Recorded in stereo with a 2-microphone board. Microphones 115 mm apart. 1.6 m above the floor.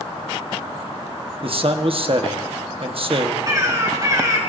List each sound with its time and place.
1.4 s a man speaking: 50° right (ahead or behind), 1.1 m
3.5 s a bird: 35° right (ahead or behind), 3.5 m